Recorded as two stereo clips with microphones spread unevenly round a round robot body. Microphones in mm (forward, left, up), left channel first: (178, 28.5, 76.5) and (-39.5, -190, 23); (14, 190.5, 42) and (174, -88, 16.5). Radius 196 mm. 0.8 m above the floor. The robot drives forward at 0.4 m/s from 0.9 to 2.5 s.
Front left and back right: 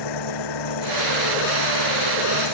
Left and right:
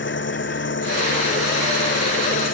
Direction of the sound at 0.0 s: 65° left.